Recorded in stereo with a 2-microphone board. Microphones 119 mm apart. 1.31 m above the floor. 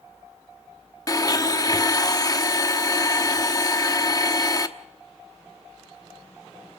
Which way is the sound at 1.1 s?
30° left (ahead or behind).